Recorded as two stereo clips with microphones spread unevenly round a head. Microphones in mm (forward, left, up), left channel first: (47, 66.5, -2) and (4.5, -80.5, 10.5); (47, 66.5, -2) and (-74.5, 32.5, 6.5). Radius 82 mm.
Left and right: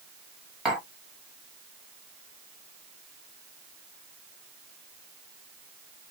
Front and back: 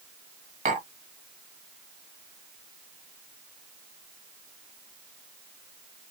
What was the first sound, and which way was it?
Tapping, 165° left.